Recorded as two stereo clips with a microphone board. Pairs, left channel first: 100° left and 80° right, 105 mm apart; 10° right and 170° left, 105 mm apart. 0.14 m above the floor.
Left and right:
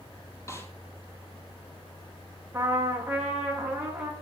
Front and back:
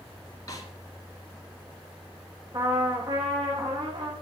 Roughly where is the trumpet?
Behind right.